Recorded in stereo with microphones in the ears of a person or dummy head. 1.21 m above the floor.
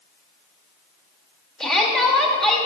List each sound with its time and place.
1.6 s a shout: 5° left (ahead or behind), 1.8 m